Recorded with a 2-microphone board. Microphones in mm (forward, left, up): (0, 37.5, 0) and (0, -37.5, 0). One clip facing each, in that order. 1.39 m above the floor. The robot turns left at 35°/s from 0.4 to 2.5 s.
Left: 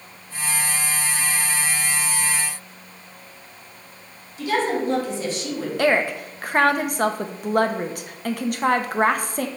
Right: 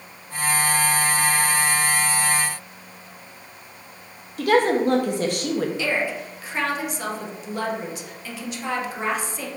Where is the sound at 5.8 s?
55° left (ahead or behind), 0.7 m.